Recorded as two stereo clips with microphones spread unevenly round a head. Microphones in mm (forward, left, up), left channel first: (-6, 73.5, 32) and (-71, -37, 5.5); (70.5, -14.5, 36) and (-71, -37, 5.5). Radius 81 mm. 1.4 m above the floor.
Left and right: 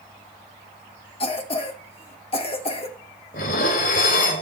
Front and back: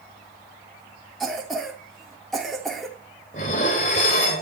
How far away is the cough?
About 3 m.